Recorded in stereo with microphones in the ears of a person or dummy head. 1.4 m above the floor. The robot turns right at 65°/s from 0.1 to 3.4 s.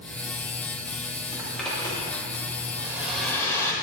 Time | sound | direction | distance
1.3 | a zipper | 20° right (ahead or behind) | 2.5 m
2.8 | a hair dryer | 25° right | 1.6 m